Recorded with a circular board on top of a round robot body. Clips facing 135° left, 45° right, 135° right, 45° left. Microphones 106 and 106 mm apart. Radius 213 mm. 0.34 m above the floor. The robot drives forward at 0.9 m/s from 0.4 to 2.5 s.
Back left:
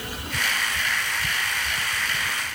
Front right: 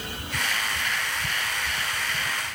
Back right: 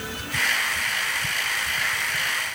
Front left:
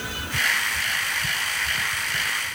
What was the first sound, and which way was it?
Only background noise.